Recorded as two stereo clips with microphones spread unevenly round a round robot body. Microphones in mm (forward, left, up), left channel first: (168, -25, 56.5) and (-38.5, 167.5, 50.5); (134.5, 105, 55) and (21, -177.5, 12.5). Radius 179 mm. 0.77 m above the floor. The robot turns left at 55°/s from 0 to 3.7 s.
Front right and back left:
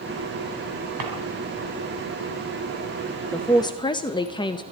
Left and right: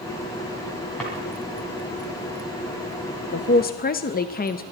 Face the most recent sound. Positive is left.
turn(degrees=20)